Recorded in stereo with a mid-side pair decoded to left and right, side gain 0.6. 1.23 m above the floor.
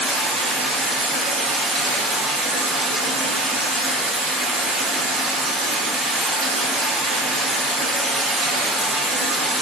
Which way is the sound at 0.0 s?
45° right.